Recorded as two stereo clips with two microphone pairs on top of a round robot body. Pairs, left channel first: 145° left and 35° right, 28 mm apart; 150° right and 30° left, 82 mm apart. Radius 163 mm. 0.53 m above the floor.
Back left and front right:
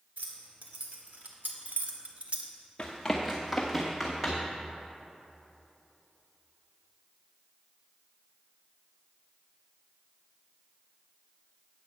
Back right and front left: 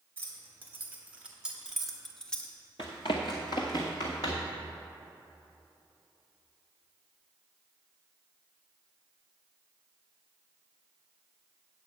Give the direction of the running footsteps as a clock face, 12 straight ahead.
5 o'clock.